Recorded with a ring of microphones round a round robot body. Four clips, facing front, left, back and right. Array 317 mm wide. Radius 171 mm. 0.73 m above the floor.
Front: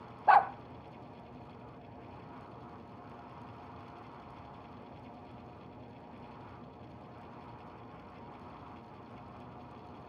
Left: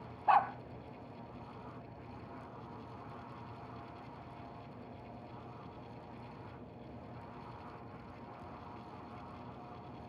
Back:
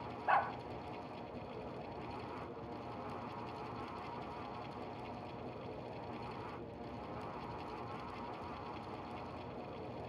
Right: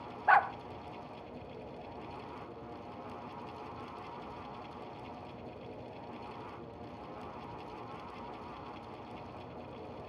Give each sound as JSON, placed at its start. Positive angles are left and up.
{"t": 0.3, "sound": "a dog barking", "azimuth_deg": -20, "distance_m": 0.6}